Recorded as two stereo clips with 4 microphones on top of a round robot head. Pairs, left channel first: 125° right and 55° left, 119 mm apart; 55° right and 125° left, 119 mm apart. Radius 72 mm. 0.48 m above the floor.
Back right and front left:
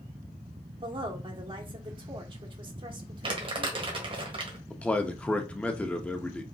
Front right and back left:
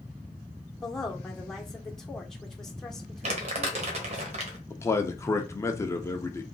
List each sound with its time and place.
0.8 s a woman speaking: 30° left, 1.3 m
3.2 s crumpling: 100° left, 1.4 m
4.7 s a man speaking: 60° right, 0.8 m